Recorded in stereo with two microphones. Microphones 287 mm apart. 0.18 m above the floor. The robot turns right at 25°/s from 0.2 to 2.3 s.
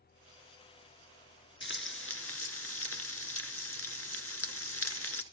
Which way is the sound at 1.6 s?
40° left (ahead or behind).